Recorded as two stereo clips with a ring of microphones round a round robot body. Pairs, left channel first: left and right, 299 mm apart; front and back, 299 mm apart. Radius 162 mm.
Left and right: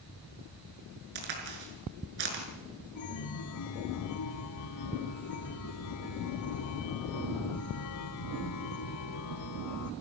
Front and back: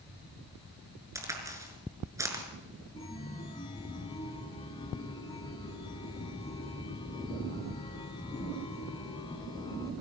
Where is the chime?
75° left, 1.4 m.